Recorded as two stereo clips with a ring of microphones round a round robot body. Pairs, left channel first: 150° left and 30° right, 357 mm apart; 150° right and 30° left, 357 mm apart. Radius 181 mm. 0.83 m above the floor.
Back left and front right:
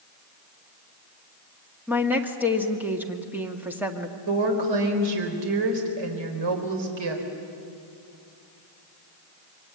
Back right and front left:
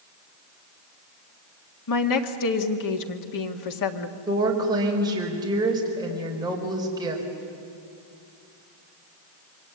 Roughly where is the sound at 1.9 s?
Behind right.